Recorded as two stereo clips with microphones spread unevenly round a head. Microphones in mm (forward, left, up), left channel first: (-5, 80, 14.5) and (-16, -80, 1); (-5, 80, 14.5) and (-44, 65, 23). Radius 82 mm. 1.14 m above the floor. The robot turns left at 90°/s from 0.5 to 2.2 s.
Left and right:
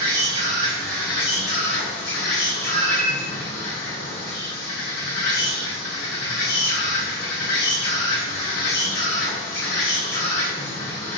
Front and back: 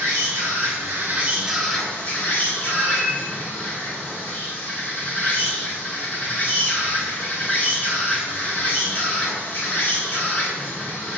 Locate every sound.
0.0 s an insect: 145° right, 2.5 m; by 11.2 s 60° left, 2.5 m
2.6 s a cat meowing: 120° right, 0.8 m